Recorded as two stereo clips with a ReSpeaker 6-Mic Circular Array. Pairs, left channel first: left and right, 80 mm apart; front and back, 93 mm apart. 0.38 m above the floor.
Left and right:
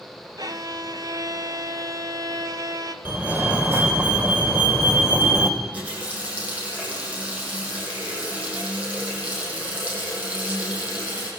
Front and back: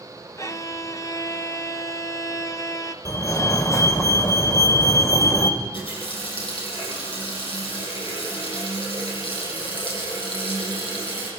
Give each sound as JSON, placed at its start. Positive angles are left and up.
{"t": 0.4, "sound": "a violin", "azimuth_deg": -55, "distance_m": 1.5}
{"t": 3.0, "sound": "a fire alarm", "azimuth_deg": -35, "distance_m": 2.5}
{"t": 5.6, "sound": "a running tap", "azimuth_deg": -15, "distance_m": 10.0}